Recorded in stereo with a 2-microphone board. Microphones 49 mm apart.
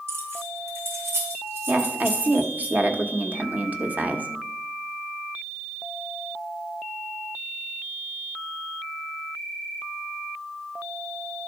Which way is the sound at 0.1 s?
70° right (ahead or behind).